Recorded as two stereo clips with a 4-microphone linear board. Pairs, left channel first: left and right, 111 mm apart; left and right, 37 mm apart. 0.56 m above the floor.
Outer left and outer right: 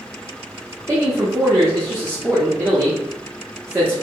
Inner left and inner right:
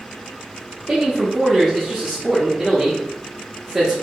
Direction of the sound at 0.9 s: 25° right (ahead or behind).